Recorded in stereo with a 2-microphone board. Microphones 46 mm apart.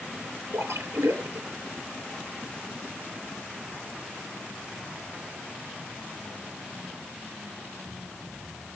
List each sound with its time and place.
0.5 s a splash: 85° right, 6 m